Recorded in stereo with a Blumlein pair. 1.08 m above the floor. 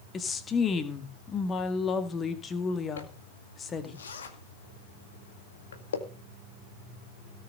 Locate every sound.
0.1 s a woman speaking: 20° left, 2 m
3.0 s a zipper: 65° left, 2 m